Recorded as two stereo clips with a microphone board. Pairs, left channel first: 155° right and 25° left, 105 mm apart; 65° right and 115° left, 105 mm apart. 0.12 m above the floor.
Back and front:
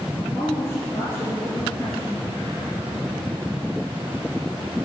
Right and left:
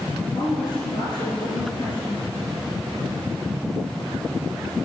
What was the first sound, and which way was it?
A woman speaking, 95° right.